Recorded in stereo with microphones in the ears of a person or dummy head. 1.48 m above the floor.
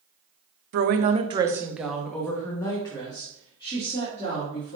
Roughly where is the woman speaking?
Right.